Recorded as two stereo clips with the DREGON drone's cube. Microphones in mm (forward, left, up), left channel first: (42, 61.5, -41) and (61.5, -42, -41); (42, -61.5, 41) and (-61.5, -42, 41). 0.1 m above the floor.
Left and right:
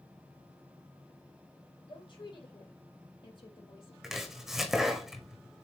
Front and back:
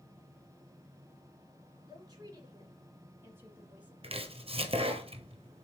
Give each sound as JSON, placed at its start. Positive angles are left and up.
{"t": 1.9, "sound": "a woman speaking", "azimuth_deg": 130, "distance_m": 2.5}
{"t": 4.0, "sound": "chopping", "azimuth_deg": -165, "distance_m": 1.2}